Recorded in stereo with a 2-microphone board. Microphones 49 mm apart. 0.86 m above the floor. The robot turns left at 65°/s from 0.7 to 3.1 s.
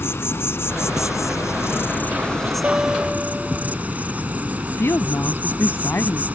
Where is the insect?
125° left; by 6.4 s 30° right.